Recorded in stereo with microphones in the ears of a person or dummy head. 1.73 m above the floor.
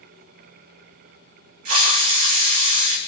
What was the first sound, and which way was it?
A hiss, 40° right (ahead or behind).